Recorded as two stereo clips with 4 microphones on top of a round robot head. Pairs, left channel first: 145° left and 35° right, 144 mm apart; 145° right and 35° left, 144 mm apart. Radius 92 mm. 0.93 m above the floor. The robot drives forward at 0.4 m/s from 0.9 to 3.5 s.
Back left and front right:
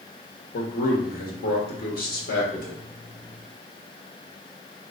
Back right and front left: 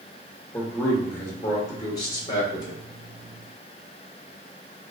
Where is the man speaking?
140° left, 1.2 m; by 2.8 s 155° left, 1.8 m.